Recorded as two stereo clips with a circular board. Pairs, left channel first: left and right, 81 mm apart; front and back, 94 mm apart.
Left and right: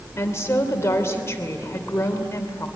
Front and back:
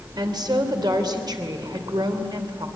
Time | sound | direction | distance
0.2 | a woman speaking | 145° left | 3 m